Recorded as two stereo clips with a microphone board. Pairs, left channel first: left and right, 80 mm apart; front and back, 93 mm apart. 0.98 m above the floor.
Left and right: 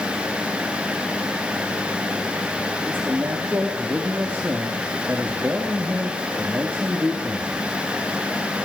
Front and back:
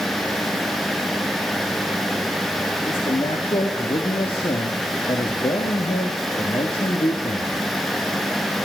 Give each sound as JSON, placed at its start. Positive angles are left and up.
{"t": 2.9, "sound": "a man speaking", "azimuth_deg": -25, "distance_m": 1.3}